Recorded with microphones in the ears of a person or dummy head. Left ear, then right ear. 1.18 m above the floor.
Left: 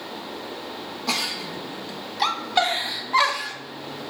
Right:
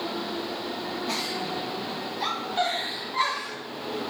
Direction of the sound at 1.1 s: 70° left (ahead or behind).